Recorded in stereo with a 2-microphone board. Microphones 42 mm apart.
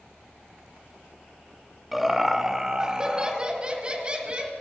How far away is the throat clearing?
I don't hear throat clearing.